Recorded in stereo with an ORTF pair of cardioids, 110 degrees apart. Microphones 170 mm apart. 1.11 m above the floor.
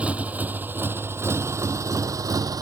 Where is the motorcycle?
10° right; by 2.6 s 20° right.